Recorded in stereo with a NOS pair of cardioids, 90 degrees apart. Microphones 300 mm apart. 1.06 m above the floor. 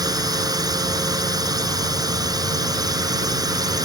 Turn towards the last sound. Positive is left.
turn(degrees=-10)